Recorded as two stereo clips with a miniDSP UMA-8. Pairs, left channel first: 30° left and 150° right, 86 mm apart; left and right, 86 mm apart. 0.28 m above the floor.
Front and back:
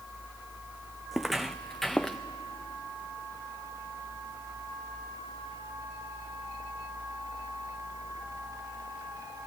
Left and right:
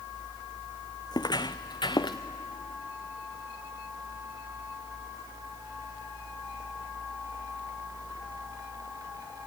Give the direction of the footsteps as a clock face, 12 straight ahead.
8 o'clock.